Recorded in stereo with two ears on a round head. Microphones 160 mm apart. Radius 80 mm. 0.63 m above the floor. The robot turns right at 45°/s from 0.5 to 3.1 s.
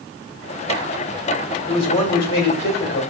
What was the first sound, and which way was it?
A man speaking, 25° left.